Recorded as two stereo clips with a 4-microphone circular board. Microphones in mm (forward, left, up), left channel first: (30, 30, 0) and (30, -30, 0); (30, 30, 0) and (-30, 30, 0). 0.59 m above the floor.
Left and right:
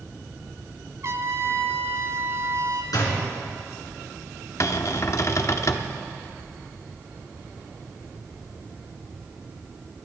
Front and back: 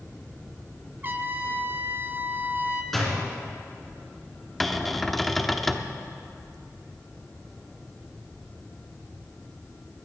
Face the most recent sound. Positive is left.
turn(degrees=85)